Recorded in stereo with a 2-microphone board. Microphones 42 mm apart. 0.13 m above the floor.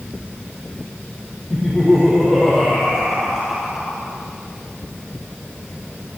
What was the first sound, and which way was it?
Laughter, 10° right (ahead or behind).